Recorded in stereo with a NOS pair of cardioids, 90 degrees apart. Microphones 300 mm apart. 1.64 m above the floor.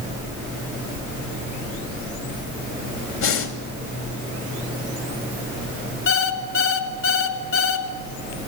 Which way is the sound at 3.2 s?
70° left.